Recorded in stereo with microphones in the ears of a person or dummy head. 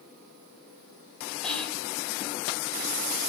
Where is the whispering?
10° left (ahead or behind), 2 m.